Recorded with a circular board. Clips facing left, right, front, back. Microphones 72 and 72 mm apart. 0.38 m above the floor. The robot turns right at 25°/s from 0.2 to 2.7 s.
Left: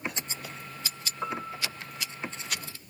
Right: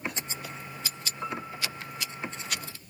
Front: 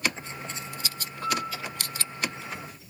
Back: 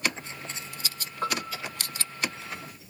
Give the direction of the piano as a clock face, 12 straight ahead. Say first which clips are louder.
Left 2 dB, front 1 dB; 7 o'clock.